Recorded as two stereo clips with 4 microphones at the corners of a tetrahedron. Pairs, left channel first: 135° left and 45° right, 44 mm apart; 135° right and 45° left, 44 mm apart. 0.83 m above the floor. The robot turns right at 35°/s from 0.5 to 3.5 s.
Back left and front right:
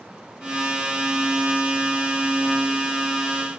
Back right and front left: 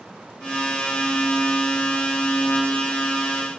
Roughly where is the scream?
No scream in this recording.